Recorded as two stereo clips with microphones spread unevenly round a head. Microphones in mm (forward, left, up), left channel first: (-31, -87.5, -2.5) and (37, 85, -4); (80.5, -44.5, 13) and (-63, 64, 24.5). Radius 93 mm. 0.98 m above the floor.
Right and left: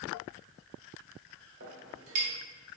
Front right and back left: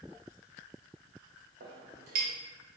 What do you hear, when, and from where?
1.6 s a clink: 100° left, 1.3 m